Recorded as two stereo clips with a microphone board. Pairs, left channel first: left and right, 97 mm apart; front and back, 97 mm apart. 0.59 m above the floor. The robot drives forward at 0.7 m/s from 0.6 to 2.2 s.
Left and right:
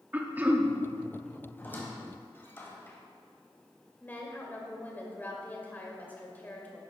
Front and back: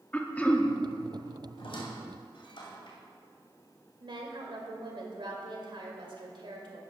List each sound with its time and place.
0.1 s throat clearing: 50° right, 0.9 m; by 0.7 s 60° right, 0.9 m
1.6 s a squeak: 20° left, 2 m; by 3.0 s 25° left, 1.8 m
4.0 s a woman speaking: 160° left, 2.5 m